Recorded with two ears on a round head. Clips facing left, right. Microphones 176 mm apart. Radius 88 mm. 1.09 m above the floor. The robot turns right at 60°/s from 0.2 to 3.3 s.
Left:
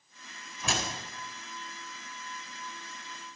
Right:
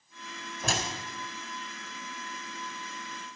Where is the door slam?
30° right (ahead or behind), 4 m; by 0.9 s 45° right (ahead or behind), 4 m.